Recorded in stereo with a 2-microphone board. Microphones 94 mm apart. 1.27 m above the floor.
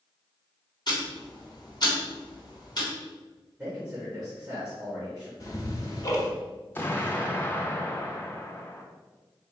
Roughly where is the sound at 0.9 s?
Left.